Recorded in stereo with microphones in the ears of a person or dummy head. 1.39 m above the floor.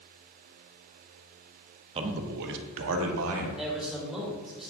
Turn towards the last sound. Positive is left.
turn(degrees=-5)  # may be behind; listen again after turning